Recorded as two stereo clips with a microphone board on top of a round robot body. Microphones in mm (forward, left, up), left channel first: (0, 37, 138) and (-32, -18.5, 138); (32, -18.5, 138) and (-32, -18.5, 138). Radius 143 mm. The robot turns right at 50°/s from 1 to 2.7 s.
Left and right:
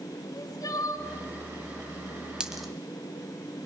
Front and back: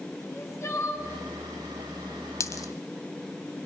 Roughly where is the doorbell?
I don't hear a doorbell.